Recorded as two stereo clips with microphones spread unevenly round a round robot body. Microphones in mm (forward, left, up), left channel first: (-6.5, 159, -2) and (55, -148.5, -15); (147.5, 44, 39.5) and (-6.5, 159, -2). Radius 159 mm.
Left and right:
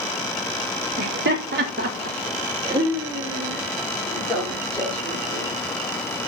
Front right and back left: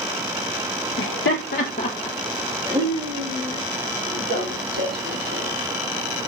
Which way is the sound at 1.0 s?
30° right.